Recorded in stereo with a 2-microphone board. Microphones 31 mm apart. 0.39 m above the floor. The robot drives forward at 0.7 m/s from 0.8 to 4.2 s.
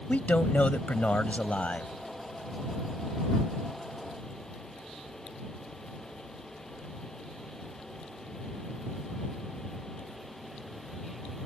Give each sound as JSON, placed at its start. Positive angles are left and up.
{"t": 0.1, "sound": "a man speaking", "side_deg": 55}